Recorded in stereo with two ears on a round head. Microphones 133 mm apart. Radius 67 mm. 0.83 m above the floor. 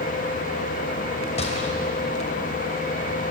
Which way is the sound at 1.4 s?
45° left (ahead or behind).